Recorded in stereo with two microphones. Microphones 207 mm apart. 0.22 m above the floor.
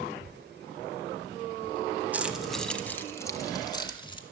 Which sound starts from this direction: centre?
Keys jangling, at 2.1 s.